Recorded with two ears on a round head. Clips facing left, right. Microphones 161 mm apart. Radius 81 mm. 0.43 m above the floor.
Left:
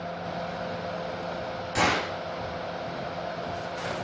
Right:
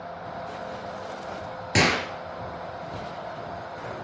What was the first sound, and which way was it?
A gunshot, 90° right.